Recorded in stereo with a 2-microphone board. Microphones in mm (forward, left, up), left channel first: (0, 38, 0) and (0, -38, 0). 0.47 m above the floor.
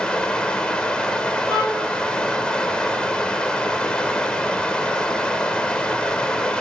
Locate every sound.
0.0 s running water: 10° left (ahead or behind), 0.9 m
1.5 s a violin: 55° left (ahead or behind), 5.5 m